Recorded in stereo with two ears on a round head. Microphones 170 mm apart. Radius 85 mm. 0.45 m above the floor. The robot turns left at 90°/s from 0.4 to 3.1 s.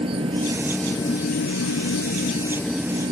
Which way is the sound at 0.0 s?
150° right.